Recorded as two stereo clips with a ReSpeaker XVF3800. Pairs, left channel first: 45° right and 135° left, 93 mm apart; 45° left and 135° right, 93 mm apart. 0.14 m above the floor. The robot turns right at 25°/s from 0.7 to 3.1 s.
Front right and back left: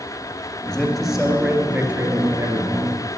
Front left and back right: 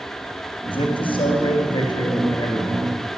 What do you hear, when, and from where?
0.7 s a man speaking: 40° left, 2.5 m; by 3.0 s 95° left, 2.5 m